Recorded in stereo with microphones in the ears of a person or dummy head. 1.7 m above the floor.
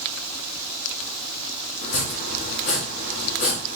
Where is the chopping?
45° left (ahead or behind), 1.4 m.